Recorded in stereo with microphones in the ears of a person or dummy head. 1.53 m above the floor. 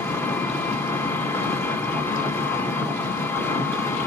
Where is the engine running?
15° left (ahead or behind), 0.9 m.